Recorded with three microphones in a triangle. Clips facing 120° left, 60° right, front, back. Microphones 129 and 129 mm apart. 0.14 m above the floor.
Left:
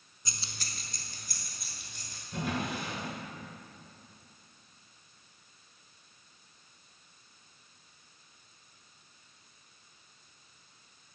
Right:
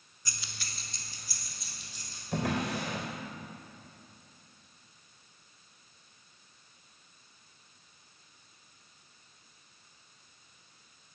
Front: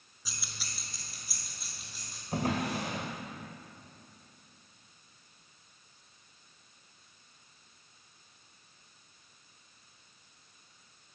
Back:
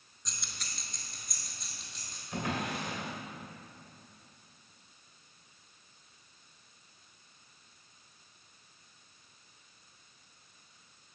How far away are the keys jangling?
About 0.8 m.